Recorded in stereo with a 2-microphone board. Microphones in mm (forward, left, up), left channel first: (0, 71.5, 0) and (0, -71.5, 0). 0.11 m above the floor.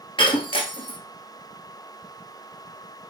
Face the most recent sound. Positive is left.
turn(degrees=35)  # may be behind; listen again after turning